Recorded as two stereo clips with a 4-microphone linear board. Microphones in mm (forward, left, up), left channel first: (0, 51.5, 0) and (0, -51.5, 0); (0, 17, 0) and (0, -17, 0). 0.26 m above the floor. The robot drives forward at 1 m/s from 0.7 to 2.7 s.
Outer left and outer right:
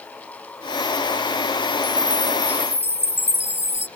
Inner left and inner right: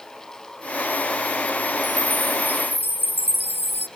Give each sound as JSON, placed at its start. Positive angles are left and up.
{"t": 1.8, "sound": "a chime", "side_deg": -60}